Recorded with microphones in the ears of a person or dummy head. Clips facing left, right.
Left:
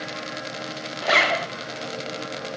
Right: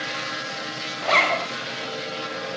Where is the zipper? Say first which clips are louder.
Even; 10° left (ahead or behind), 0.7 m.